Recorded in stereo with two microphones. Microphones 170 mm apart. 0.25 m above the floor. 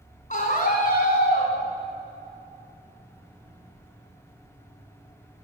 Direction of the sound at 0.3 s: 50° left (ahead or behind).